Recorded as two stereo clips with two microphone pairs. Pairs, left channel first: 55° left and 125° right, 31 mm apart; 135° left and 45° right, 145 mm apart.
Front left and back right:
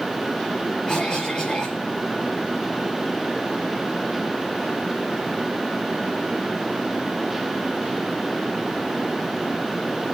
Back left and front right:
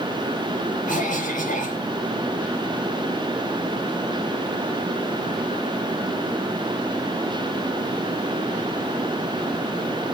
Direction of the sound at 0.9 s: 115° left.